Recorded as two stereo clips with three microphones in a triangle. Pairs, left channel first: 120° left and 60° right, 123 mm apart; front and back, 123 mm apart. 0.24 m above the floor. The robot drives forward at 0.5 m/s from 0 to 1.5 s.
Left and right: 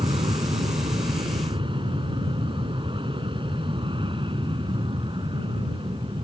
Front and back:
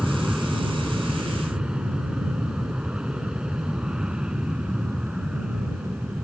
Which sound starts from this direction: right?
An aircraft, at 0.0 s.